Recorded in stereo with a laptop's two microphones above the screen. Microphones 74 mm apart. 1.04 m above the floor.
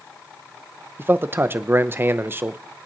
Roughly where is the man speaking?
Right.